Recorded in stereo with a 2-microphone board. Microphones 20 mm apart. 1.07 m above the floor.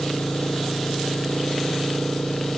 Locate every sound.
0.0 s an engine running: 90° left